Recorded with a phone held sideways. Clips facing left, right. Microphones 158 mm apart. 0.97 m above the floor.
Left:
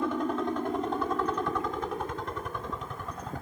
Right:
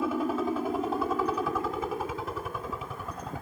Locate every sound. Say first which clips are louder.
0.0 s a helicopter: right 1 dB; 5° right (ahead or behind)